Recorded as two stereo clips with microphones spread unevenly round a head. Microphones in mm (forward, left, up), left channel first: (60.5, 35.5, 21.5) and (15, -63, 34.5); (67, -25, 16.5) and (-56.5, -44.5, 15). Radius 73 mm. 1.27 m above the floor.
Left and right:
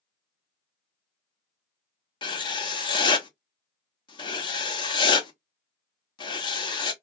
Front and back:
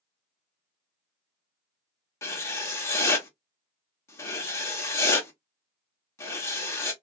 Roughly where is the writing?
Left.